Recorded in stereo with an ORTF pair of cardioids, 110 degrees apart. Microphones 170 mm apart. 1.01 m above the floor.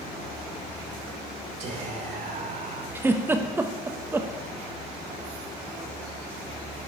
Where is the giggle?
15° right, 0.8 m.